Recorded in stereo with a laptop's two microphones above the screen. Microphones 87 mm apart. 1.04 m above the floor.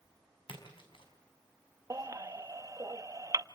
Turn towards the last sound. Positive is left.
turn(degrees=-40)  # may be behind; listen again after turning